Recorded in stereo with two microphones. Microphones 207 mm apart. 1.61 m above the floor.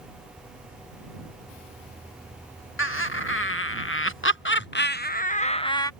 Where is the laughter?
75° left (ahead or behind); by 5.9 s 15° left (ahead or behind).